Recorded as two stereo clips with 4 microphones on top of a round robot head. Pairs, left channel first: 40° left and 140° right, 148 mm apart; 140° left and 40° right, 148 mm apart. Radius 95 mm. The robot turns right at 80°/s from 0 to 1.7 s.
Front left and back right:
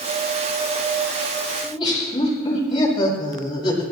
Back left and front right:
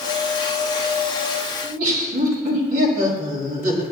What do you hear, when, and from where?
1.6 s laughter: 25° right, 5.5 m; by 3.8 s 20° right, 5.5 m